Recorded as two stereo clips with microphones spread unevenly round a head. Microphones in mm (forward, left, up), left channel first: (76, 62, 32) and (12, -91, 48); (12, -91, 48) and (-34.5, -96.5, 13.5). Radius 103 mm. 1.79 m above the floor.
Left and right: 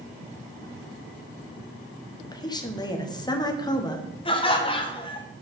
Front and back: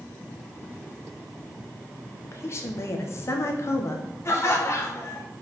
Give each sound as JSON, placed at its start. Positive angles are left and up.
{"t": 2.2, "sound": "a woman speaking", "azimuth_deg": 0, "distance_m": 1.3}
{"t": 4.2, "sound": "laughter", "azimuth_deg": 5, "distance_m": 1.6}